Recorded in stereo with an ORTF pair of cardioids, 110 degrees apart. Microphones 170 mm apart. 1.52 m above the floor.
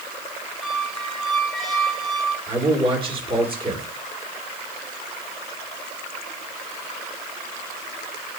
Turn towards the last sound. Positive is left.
turn(degrees=-30)